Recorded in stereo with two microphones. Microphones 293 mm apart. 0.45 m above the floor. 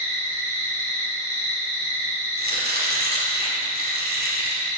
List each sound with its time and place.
0.0 s an insect: 10° left (ahead or behind), 3 m
2.4 s chopping: 30° right (ahead or behind), 1.5 m